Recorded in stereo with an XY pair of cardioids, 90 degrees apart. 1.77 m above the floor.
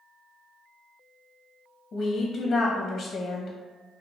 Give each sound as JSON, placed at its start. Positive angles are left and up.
{"t": 1.9, "sound": "a woman speaking", "azimuth_deg": 60, "distance_m": 0.6}